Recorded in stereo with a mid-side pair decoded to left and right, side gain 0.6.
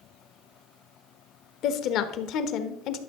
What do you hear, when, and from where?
1.6 s a woman speaking: 60° left, 1.1 m